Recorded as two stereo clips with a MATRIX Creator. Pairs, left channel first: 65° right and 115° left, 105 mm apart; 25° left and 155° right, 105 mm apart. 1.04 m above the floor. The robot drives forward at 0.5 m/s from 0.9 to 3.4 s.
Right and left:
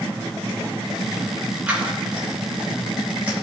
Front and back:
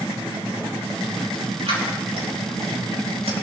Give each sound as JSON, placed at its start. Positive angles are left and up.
{"t": 1.7, "sound": "scissors", "azimuth_deg": -170, "distance_m": 6.0}